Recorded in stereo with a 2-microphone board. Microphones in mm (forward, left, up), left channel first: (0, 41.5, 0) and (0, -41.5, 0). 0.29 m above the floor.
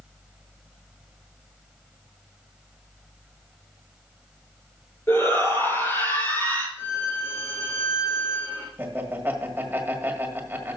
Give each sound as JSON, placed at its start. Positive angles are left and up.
{"t": 5.1, "sound": "a shout", "side_deg": 30, "distance_m": 4.5}
{"t": 6.8, "sound": "a violin", "side_deg": 25, "distance_m": 4.0}
{"t": 8.8, "sound": "laughter", "side_deg": -25, "distance_m": 1.6}